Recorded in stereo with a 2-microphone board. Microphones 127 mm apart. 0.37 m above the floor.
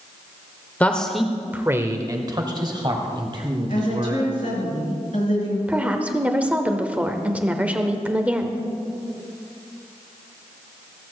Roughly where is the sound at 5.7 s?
Centre.